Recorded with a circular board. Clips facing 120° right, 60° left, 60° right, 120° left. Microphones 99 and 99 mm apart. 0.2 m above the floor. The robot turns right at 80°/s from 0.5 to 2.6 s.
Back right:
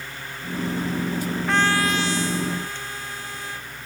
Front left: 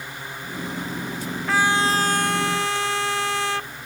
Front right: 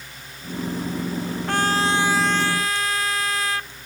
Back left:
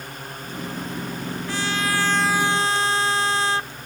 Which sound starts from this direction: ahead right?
A trumpet, at 1.5 s.